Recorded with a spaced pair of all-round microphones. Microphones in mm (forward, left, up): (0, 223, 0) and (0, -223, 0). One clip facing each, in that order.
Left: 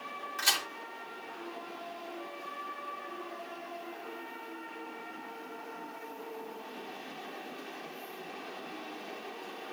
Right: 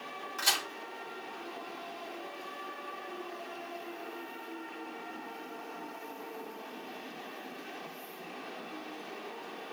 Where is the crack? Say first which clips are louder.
Right 1 dB; 60° right (ahead or behind), 2 m.